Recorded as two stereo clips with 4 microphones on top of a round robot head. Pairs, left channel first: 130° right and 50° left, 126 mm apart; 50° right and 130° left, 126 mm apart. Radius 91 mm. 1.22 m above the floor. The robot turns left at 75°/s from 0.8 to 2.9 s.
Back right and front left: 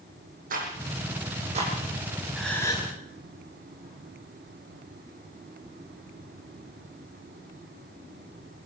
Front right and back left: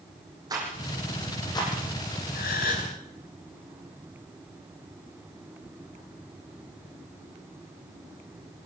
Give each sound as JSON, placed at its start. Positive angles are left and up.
{"t": 0.5, "sound": "a rattle", "azimuth_deg": 70, "distance_m": 9.0}
{"t": 2.4, "sound": "a gasp", "azimuth_deg": -40, "distance_m": 5.0}